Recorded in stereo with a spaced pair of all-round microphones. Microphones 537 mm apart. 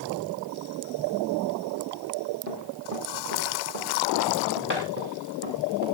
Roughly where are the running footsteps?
Right.